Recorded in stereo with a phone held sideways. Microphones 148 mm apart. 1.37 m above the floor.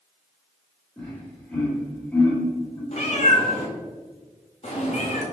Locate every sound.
1.0 s laughter: 10° left (ahead or behind), 1.5 m
2.9 s a cat meowing: 50° left (ahead or behind), 1.0 m